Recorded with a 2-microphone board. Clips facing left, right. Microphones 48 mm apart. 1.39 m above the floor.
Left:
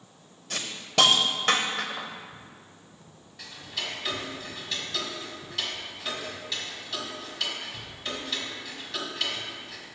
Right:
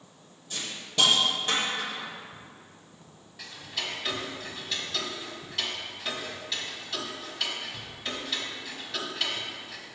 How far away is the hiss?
About 0.8 m.